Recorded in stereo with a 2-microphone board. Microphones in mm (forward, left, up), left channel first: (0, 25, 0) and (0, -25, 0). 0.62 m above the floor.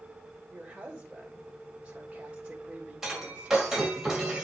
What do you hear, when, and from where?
0.5 s a woman speaking: 15° right (ahead or behind), 1.8 m
3.0 s breaking glass: 10° right (ahead or behind), 2 m